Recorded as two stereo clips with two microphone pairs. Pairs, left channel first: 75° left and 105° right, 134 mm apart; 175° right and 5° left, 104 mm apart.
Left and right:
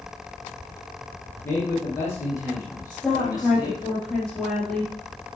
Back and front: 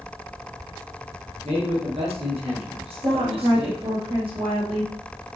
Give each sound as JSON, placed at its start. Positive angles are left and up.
{"t": 1.4, "sound": "a man speaking", "azimuth_deg": 0, "distance_m": 4.5}
{"t": 2.9, "sound": "a woman speaking", "azimuth_deg": -10, "distance_m": 4.5}